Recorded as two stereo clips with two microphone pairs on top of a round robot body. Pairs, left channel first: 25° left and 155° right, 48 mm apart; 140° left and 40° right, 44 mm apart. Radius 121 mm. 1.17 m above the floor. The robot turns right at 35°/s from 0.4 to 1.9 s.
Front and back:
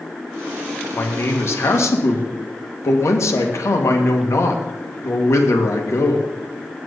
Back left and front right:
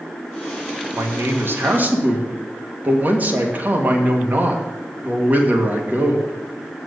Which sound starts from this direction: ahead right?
A man speaking, at 0.9 s.